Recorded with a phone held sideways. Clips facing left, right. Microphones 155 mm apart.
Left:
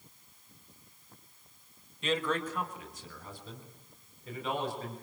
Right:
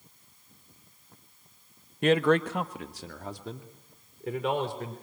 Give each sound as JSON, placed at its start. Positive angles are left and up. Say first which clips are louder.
{"t": 2.0, "sound": "a man speaking", "louder": "right 9 dB", "side_deg": -60, "distance_m": 0.9}